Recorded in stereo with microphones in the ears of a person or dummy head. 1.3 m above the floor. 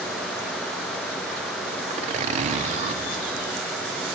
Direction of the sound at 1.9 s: 40° right (ahead or behind).